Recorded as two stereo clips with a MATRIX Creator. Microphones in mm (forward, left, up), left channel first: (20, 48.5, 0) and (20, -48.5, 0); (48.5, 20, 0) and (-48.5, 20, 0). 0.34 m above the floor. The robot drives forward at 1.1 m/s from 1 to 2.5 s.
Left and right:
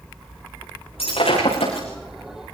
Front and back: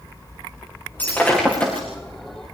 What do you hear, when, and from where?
1.0 s breaking glass: 75° left, 9 m; by 1.9 s 80° left, 9 m